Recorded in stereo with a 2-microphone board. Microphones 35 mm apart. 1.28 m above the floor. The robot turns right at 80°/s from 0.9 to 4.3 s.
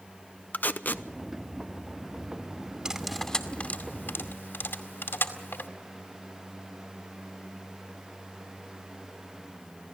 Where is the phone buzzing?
No phone buzzing in this recording.